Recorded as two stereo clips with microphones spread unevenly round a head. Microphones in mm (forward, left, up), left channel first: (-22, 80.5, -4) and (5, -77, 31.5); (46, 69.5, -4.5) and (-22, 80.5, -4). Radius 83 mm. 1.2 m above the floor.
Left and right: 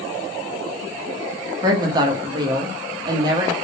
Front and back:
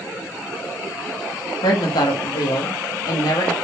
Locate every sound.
1.6 s a woman speaking: 10° right, 1.0 m